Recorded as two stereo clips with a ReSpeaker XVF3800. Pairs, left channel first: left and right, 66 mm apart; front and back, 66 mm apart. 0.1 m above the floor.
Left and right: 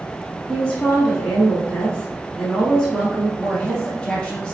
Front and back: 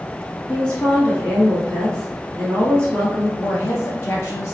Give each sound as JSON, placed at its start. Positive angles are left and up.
{"t": 0.5, "sound": "a woman speaking", "azimuth_deg": 30, "distance_m": 1.1}
{"t": 3.4, "sound": "a woman speaking", "azimuth_deg": 20, "distance_m": 2.0}